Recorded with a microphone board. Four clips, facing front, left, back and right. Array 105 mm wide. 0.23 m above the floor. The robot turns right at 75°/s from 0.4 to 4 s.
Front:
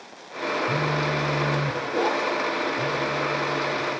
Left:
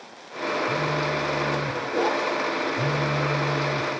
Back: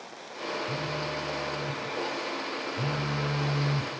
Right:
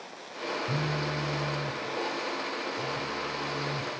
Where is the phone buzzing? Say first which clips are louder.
Left 6 dB, front 8 dB; 50° right, 1.5 m; by 3.9 s 170° right, 1.5 m.